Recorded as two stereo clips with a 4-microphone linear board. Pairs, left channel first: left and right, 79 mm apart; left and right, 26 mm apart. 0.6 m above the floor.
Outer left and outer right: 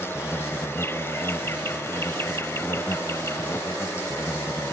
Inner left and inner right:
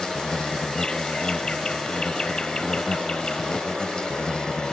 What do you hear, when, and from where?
0.0 s an insect: 35° left (ahead or behind)